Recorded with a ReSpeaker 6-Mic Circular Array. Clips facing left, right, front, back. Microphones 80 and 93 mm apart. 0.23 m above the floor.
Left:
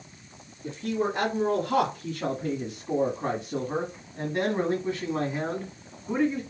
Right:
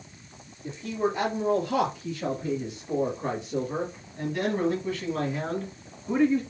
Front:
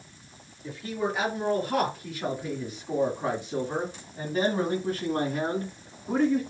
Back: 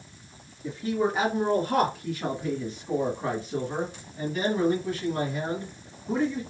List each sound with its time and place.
0.6 s a man speaking: 115° left, 2 m; by 6.4 s 5° left, 1.9 m